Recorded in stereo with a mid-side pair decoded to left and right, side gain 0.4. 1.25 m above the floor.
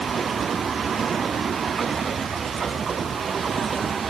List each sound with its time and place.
Only background noise.